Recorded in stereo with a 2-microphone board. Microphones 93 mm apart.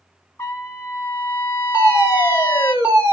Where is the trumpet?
30° left (ahead or behind), 0.9 m.